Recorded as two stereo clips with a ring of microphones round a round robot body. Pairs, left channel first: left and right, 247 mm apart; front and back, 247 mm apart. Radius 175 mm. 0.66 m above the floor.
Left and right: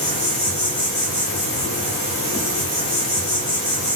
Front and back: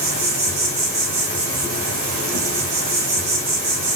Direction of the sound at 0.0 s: 160° left.